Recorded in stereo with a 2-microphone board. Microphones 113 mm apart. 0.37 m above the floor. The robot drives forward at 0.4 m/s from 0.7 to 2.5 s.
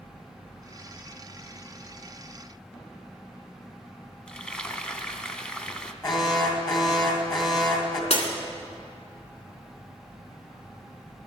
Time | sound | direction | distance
4.3 | frying | 10° left (ahead or behind) | 0.8 m
6.0 | an alarm | 40° left (ahead or behind) | 2 m
8.1 | breaking glass | 70° left (ahead or behind) | 1.8 m